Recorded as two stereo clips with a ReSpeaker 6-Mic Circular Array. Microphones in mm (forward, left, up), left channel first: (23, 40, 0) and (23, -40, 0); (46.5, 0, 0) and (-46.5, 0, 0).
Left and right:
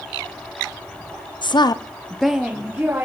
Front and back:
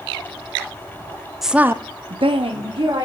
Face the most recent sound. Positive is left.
turn(degrees=-150)